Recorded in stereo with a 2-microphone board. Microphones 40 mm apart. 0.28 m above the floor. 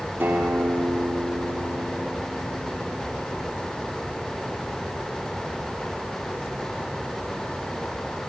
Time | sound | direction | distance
0.2 | a guitar | 75° right (ahead or behind) | 4.5 m